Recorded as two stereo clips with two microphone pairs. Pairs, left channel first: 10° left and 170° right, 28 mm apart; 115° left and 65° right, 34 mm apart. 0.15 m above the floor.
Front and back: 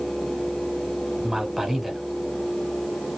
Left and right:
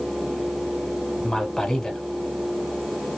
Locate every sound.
1.2 s a man speaking: 150° left, 1.1 m